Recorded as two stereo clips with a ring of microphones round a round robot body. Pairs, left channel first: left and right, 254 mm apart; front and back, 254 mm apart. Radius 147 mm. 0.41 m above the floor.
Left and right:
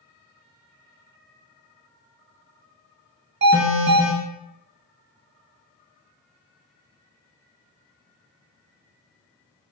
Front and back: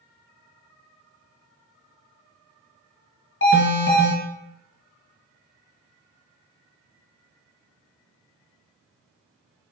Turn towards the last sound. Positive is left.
turn(degrees=-40)